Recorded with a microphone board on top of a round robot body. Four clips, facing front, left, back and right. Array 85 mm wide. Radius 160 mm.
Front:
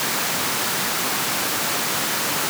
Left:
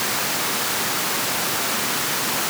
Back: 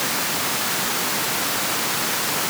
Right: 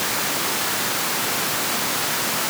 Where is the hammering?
I don't hear hammering.